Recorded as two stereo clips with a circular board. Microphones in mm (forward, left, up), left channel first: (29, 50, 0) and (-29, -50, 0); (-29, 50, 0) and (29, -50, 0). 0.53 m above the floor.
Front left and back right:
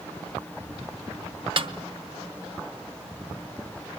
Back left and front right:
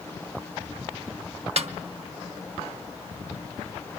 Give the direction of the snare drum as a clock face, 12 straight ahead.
3 o'clock.